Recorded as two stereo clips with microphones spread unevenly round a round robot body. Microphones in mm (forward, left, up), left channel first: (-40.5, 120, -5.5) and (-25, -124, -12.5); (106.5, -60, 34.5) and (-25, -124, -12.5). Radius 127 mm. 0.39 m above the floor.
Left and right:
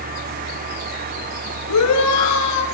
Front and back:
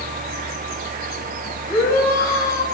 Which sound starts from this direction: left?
A shout, at 1.7 s.